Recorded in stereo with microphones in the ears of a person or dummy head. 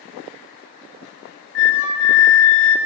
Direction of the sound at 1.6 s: 70° left (ahead or behind).